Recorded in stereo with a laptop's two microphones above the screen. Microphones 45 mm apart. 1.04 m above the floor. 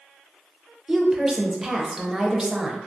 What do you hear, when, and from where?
0.9 s a woman speaking: 15° right (ahead or behind), 0.6 m